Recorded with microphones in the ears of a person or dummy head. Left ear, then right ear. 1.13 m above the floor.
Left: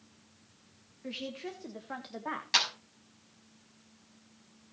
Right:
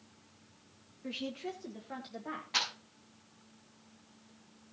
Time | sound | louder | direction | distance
1.0 | a woman speaking | even | 5° left (ahead or behind) | 1.5 m
2.5 | a clap | left 5 dB | 75° left (ahead or behind) | 5.5 m